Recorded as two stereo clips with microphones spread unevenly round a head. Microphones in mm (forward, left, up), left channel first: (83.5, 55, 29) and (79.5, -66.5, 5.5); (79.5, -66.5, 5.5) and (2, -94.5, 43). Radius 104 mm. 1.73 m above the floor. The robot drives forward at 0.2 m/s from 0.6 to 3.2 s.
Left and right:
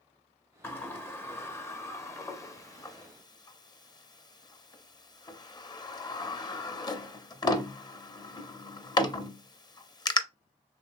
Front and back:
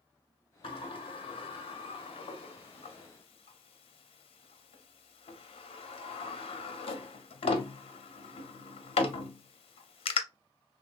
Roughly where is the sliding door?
Ahead.